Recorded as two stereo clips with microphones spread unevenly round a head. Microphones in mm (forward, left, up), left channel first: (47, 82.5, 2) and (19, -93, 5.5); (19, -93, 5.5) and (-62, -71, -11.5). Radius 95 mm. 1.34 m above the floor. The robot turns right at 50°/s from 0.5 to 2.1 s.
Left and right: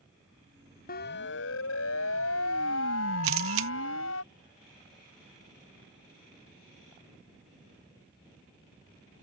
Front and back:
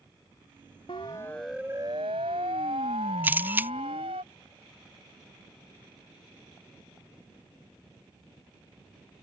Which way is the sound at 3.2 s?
125° right.